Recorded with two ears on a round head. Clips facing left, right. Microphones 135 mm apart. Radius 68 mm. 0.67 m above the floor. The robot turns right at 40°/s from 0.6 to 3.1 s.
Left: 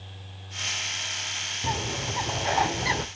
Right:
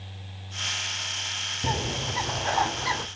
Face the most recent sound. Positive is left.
turn(degrees=35)